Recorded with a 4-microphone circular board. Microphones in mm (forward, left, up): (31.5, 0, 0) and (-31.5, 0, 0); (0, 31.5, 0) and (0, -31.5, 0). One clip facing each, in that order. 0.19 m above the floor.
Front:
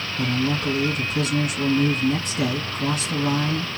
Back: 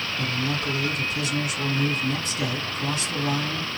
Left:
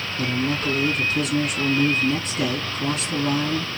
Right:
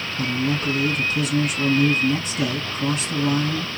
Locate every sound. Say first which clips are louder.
0.2 s a man speaking: front 6 dB, right 1 dB; straight ahead, 2 m